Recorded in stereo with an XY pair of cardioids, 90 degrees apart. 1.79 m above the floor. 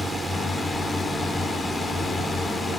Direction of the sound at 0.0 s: 30° left.